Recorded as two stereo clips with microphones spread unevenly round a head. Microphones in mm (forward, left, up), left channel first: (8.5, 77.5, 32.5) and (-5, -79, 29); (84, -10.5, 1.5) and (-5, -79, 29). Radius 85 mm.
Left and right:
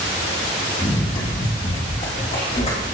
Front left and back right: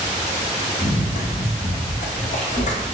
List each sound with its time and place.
0.8 s running footsteps: 25° left, 3 m; by 2.8 s 35° left, 4 m